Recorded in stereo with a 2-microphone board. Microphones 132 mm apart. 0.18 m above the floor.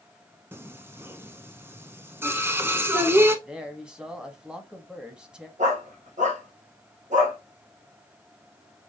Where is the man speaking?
5° right (ahead or behind), 1.0 m.